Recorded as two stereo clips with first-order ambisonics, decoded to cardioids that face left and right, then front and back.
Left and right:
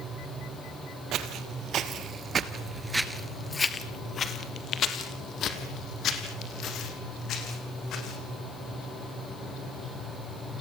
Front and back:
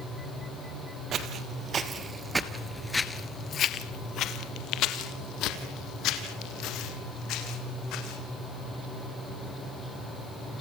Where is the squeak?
I don't hear a squeak.